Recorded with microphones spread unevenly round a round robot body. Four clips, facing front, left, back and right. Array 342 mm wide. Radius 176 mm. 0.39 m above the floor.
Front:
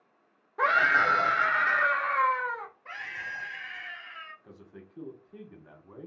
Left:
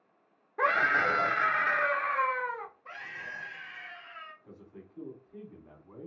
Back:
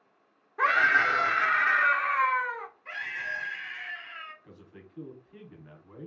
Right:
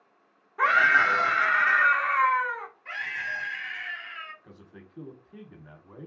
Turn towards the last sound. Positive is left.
turn(degrees=-75)